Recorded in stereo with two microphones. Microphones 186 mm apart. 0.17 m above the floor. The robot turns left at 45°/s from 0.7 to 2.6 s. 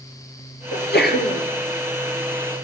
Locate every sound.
0.7 s a sneeze: 100° left, 2.5 m; by 1.4 s 70° left, 2.5 m